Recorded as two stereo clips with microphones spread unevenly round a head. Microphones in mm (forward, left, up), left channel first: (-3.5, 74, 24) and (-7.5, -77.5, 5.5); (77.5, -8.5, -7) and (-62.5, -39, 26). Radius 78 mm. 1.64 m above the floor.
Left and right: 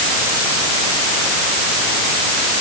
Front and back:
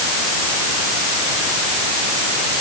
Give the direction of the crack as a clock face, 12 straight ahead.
I don't hear a crack.